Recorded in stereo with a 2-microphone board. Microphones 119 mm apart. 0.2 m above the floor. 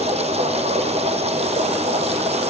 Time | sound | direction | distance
0.0 | running water | 55° right (ahead or behind) | 3.5 m